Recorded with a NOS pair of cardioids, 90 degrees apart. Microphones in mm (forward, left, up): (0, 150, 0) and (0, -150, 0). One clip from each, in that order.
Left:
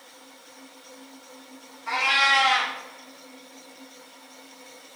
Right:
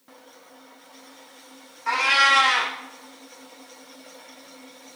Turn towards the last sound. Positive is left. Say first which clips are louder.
# right 2 dB
turn(degrees=-55)